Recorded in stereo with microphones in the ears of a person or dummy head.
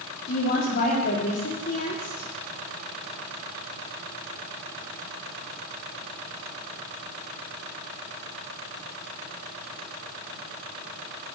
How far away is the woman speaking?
About 2.0 m.